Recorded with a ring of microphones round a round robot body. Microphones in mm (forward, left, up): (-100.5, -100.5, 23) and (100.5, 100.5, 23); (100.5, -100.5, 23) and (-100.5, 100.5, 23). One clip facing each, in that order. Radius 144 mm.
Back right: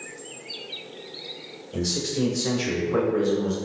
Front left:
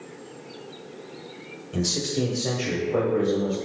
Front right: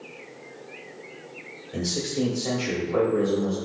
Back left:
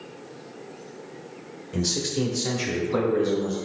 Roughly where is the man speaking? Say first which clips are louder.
Even, back left 1 dB; left.